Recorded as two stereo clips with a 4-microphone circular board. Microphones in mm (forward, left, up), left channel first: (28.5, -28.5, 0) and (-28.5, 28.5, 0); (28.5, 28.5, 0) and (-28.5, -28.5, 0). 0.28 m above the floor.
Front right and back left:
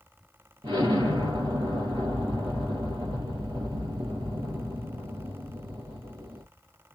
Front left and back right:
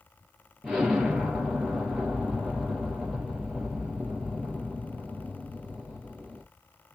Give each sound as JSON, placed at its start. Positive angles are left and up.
{"t": 0.6, "sound": "an explosion", "azimuth_deg": 145, "distance_m": 3.5}